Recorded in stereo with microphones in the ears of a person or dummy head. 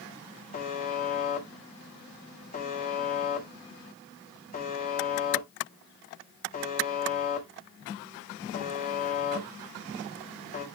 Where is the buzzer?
35° left (ahead or behind), 1.9 m.